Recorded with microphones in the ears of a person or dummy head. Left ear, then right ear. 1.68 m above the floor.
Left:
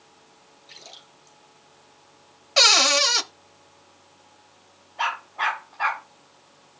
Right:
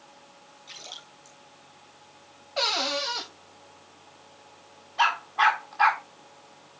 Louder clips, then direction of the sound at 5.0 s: Right 4 dB; 50° right (ahead or behind).